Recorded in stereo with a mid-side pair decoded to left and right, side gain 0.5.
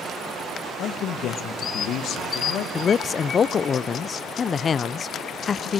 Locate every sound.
0.8 s a man speaking: 70° left, 1.8 m
2.8 s a man speaking: 40° left, 0.6 m